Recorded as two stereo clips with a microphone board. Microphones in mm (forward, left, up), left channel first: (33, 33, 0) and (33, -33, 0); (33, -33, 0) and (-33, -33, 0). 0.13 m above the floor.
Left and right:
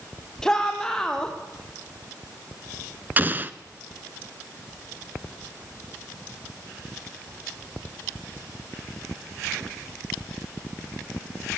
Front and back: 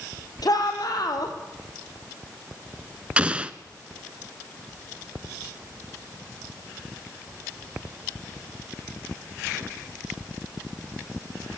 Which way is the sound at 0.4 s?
10° left.